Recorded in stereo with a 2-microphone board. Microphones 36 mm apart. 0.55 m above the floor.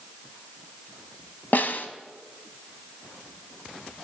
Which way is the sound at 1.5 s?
55° left (ahead or behind).